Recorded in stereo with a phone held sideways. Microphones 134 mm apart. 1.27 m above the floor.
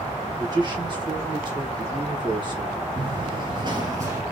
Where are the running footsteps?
40° right (ahead or behind), 1.8 m; by 4.2 s 20° right (ahead or behind), 1.8 m.